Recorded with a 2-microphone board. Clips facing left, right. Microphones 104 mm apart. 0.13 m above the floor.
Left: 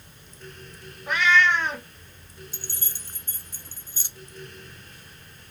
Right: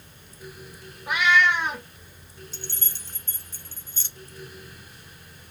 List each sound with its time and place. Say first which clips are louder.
1.1 s a cat meowing: even; 10° right (ahead or behind), 0.8 m
2.5 s keys jangling: right 1 dB; 10° left (ahead or behind), 0.7 m